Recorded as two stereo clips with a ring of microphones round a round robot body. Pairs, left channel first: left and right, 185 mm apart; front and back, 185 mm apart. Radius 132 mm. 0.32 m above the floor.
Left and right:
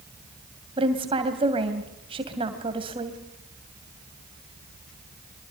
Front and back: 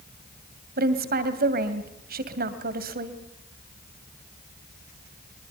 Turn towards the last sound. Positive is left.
turn(degrees=-150)